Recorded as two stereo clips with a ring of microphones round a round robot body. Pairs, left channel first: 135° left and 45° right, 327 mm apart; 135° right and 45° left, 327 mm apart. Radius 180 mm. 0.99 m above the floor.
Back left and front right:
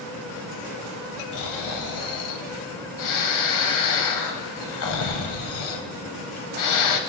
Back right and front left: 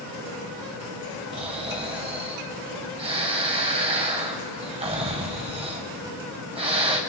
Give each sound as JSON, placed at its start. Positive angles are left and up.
{"t": 1.3, "sound": "snoring", "azimuth_deg": 115, "distance_m": 1.1}